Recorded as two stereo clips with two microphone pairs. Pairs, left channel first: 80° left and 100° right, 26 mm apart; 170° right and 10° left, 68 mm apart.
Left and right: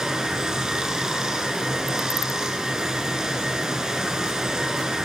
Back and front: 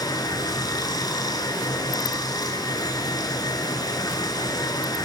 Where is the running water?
165° right, 1.3 m.